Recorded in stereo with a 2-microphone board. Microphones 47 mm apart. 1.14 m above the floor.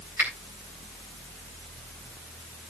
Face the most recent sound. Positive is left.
turn(degrees=-45)  # may be behind; listen again after turning